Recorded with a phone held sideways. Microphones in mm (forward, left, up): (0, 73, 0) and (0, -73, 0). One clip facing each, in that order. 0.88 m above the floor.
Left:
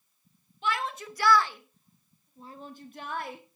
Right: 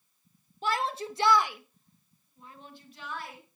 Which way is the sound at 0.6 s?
40° right (ahead or behind).